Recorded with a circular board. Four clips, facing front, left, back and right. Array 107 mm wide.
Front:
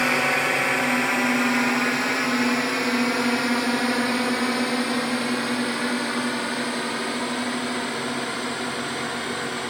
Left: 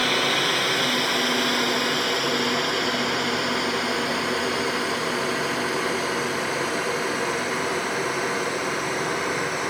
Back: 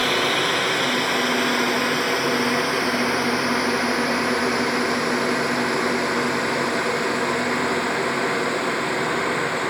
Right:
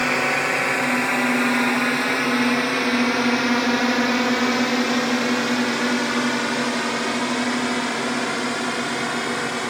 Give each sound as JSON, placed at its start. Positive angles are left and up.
{"t": 0.0, "sound": "a drone", "azimuth_deg": -45}